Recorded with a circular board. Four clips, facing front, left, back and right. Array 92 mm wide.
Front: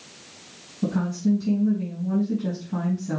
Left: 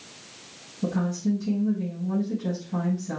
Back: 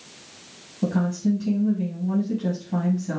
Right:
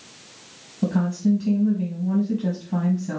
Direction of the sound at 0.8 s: 125° right.